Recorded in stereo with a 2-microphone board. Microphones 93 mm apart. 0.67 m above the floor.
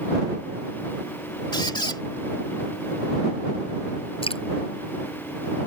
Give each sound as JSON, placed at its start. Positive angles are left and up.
{"t": 1.5, "sound": "a squeak", "side_deg": 55}
{"t": 4.2, "sound": "dripping", "side_deg": 80}